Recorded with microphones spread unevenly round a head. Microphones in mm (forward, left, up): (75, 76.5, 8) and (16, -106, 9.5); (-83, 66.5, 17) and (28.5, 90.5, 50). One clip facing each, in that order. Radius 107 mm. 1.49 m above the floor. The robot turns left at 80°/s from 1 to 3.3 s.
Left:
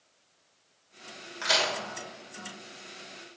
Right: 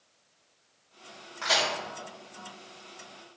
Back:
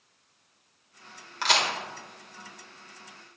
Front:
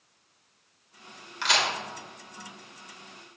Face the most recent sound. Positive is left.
turn(degrees=0)